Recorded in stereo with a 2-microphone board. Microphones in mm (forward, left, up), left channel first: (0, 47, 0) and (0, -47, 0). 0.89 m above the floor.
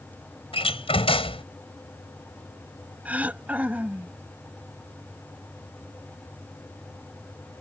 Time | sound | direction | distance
0.5 | a door slam | 85° left | ?
3.0 | throat clearing | 15° right (ahead or behind) | ?